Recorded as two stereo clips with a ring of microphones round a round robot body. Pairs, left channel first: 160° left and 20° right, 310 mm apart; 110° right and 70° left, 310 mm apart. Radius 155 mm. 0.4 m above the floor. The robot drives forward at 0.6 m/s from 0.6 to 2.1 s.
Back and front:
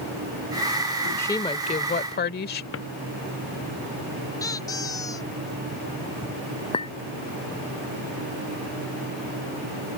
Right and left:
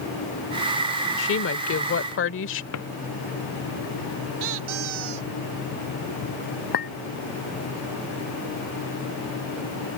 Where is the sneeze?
I don't hear a sneeze.